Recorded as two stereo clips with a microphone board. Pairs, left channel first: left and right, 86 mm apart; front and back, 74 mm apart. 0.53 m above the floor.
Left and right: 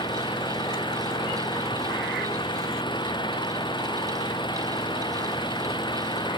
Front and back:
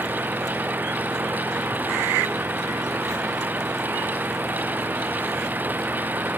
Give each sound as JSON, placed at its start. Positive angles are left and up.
{"t": 0.0, "sound": "an engine running", "azimuth_deg": 115}